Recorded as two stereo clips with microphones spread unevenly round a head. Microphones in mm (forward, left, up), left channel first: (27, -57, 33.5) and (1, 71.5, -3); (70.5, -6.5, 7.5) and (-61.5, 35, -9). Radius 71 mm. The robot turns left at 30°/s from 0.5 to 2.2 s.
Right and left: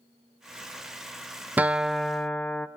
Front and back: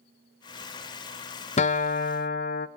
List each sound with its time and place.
1.6 s a guitar: 25° left, 0.6 m; by 2.7 s 5° left, 0.6 m